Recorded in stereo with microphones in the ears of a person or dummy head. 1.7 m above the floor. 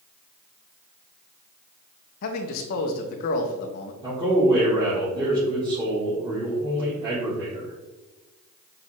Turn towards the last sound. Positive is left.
turn(degrees=-20)  # may be behind; listen again after turning